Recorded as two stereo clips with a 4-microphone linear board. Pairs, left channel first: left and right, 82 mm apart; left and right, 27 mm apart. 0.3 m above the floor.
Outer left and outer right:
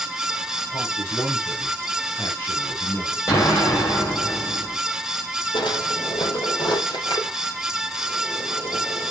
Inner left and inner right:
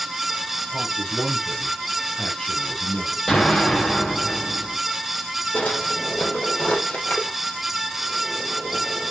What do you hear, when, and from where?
0.7 s a man speaking: 30° left (ahead or behind), 4.5 m
3.3 s an explosion: 35° left (ahead or behind), 7.5 m
5.5 s a drawer: 85° left, 3.5 m